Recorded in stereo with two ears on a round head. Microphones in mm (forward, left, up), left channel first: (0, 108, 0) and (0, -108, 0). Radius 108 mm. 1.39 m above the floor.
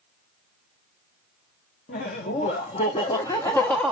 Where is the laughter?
35° left (ahead or behind), 1.8 m; by 3.9 s centre (ahead or behind), 1.0 m.